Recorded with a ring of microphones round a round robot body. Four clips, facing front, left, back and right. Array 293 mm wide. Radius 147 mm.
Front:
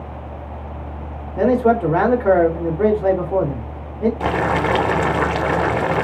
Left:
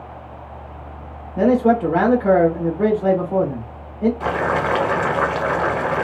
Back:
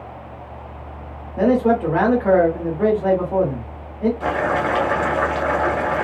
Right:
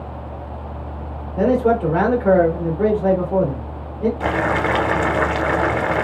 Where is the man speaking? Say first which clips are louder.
Left 1 dB, front 1 dB; 15° left, 1.0 m.